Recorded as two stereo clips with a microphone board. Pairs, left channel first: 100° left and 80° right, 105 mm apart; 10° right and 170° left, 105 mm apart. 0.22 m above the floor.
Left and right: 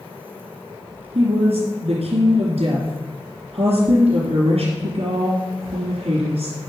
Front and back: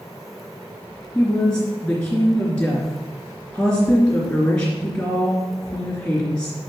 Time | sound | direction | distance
1.1 | a woman speaking | 90° right | 3 m